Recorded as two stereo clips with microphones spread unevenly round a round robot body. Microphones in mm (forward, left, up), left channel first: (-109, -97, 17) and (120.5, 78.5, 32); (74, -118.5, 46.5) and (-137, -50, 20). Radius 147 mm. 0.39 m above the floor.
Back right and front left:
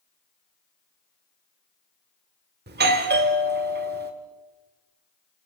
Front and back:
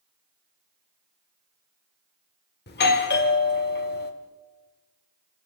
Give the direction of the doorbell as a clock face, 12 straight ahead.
12 o'clock.